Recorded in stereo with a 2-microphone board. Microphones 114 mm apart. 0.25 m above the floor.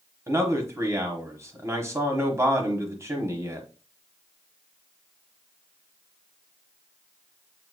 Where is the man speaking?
25° right (ahead or behind), 1.2 m.